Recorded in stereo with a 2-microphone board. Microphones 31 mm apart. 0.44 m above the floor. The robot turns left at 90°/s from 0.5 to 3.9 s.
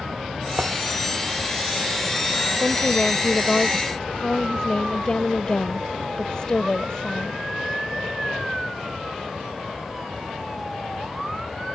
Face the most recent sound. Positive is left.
turn(degrees=35)